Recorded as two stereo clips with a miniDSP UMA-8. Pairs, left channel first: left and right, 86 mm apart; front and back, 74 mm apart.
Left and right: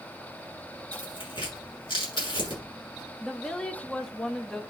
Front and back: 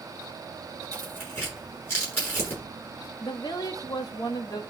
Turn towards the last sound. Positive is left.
turn(degrees=10)